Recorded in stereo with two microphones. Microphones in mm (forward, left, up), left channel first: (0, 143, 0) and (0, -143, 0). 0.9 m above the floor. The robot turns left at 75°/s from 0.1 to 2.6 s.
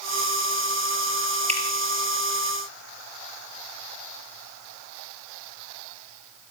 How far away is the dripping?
About 3.5 m.